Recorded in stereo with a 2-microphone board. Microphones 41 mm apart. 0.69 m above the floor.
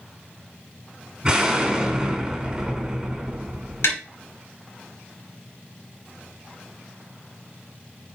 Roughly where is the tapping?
Left.